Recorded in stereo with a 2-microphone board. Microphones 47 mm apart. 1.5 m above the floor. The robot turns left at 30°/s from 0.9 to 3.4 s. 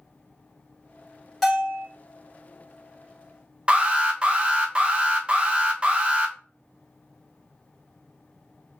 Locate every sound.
1.4 s a bell: 5° right (ahead or behind), 1.6 m; by 1.9 s 15° right (ahead or behind), 1.6 m
3.7 s an alarm: 25° right (ahead or behind), 0.7 m